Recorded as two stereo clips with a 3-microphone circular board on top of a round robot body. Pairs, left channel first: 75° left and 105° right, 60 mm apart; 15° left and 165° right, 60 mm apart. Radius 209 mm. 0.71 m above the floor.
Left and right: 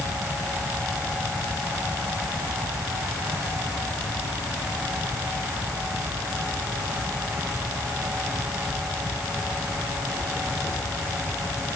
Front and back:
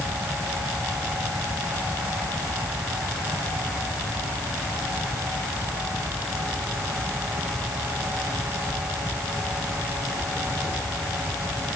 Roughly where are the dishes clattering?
I don't hear dishes clattering.